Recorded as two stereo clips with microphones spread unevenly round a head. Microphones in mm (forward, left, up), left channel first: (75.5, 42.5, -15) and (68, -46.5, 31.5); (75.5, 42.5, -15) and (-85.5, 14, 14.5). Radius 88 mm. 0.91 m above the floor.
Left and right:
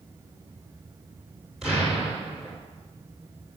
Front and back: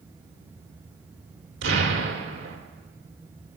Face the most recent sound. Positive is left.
turn(degrees=175)